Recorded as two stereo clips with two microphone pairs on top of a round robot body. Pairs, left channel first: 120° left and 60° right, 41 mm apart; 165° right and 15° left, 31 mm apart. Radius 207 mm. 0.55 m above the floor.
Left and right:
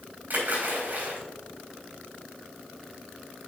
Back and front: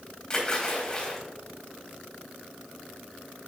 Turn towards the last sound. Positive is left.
turn(degrees=-105)